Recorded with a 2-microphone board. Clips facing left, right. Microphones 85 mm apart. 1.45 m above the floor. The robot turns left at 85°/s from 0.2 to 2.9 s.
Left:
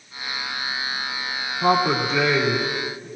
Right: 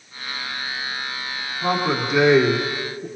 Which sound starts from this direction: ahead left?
A man speaking, at 1.6 s.